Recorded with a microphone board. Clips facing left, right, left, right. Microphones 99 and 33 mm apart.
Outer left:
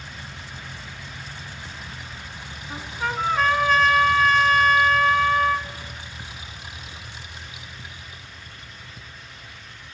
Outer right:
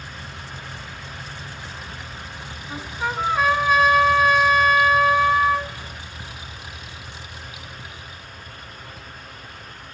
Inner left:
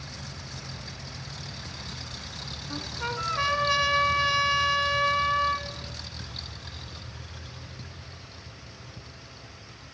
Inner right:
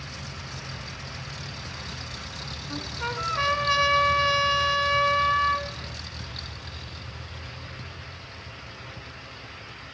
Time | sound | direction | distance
2.7 | a trumpet | 10° right (ahead or behind) | 1.2 m